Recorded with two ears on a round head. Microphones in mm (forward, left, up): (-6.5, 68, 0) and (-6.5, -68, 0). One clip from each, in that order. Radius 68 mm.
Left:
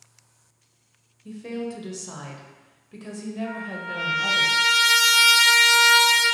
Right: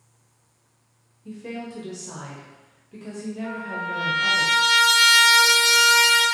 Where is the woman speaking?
20° left (ahead or behind), 0.5 m.